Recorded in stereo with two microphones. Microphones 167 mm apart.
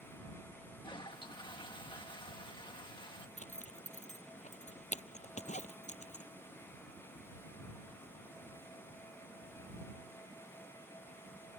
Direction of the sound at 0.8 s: 30° left (ahead or behind).